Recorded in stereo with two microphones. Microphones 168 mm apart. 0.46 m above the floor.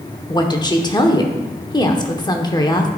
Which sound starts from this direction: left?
A woman speaking, at 0.3 s.